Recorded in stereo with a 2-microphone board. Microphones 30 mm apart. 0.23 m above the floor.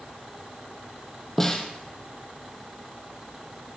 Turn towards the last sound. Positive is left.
turn(degrees=10)  # may be behind; listen again after turning